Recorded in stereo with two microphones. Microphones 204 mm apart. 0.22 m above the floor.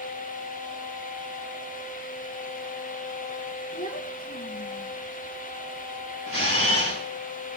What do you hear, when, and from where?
3.7 s a child speaking: 45° left (ahead or behind), 2.5 m
6.3 s a camera shutter: 90° right, 6 m